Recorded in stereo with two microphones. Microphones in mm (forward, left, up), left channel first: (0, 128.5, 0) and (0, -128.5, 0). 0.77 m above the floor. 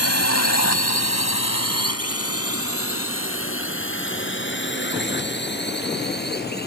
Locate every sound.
0.0 s a drone: 70° left (ahead or behind); by 6.7 s 40° left (ahead or behind)